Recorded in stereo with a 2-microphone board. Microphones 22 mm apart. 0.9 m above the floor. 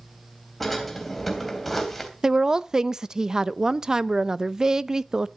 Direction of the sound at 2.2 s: 20° right (ahead or behind).